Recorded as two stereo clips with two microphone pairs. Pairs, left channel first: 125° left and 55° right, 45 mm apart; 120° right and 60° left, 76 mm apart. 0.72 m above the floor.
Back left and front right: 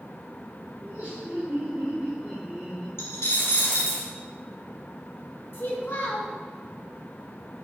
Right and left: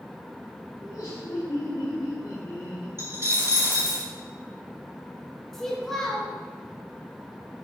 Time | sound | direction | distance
0.8 | laughter | 100° right | 2.5 m
3.0 | a dropped coin | 115° left | 2.5 m
5.5 | a child speaking | 155° left | 1.8 m